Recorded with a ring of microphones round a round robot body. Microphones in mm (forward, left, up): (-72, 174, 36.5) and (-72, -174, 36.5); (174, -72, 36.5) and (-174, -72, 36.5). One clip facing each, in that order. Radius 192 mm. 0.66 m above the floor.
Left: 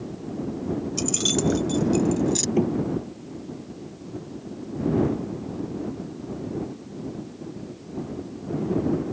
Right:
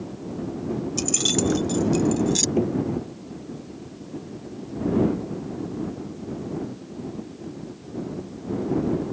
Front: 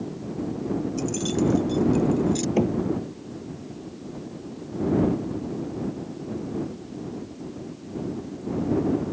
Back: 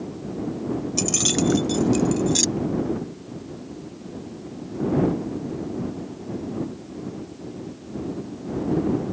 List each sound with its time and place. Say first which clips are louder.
1.0 s keys jangling: right 1 dB, back 1 dB; 175° right; by 2.5 s 160° right
2.6 s knocking: left 1 dB, front 3 dB; 10° left